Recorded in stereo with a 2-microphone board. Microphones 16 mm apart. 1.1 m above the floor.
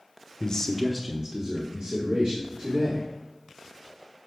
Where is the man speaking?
45° left (ahead or behind), 0.9 m; by 3.0 s 75° right (ahead or behind), 3 m.